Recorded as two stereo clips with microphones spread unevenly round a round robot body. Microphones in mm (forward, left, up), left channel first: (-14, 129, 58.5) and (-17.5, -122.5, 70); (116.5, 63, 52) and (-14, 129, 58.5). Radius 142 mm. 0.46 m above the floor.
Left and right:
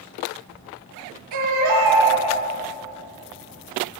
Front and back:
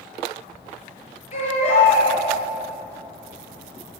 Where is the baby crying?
85° right, 7.5 m.